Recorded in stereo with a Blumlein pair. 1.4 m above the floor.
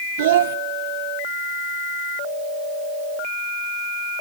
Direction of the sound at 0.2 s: 55° right.